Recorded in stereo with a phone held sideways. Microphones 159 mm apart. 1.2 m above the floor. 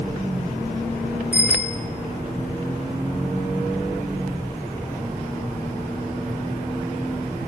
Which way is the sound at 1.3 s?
10° right (ahead or behind).